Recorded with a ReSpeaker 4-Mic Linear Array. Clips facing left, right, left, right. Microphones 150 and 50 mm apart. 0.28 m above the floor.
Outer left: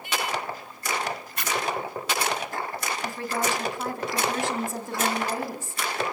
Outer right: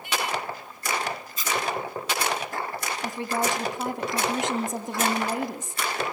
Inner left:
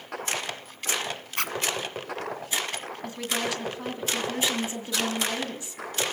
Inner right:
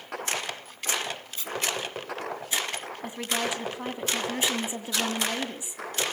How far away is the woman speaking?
About 2.5 m.